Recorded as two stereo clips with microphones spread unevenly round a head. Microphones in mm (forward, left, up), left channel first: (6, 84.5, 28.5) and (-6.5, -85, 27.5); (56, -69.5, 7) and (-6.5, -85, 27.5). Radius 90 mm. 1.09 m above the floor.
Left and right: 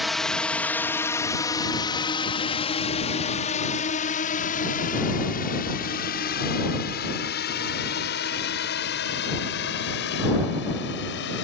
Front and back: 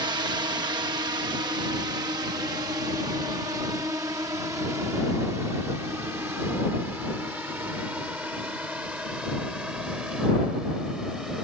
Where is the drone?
175° left; by 11.4 s 105° left.